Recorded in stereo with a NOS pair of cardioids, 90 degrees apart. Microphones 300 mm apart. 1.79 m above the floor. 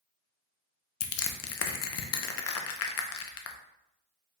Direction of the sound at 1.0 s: 50° left.